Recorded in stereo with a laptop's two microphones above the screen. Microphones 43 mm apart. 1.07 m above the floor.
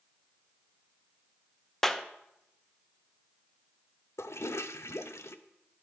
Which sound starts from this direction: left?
A toilet flushing, at 4.2 s.